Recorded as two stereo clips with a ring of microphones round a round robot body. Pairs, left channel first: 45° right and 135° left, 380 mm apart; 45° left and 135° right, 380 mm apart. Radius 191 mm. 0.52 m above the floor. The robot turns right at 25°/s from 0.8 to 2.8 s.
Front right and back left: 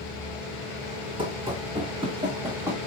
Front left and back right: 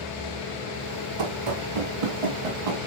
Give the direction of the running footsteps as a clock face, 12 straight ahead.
5 o'clock.